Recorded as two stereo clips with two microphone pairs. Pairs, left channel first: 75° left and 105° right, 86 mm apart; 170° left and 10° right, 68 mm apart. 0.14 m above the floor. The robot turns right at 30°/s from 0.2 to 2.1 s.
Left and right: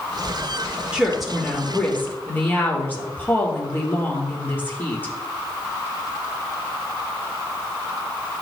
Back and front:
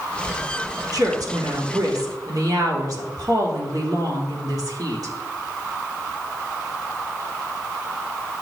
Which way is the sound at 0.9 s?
25° right.